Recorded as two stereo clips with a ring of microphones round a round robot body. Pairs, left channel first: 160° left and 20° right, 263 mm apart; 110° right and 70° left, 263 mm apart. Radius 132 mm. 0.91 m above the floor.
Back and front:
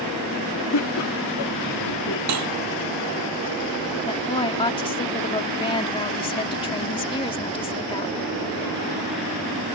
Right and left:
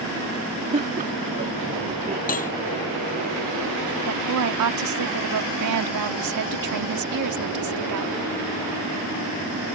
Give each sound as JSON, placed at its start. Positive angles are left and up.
{"t": 0.7, "sound": "laughter", "azimuth_deg": 130}
{"t": 2.3, "sound": "cutlery clinking", "azimuth_deg": -50}
{"t": 4.1, "sound": "a woman speaking", "azimuth_deg": 85}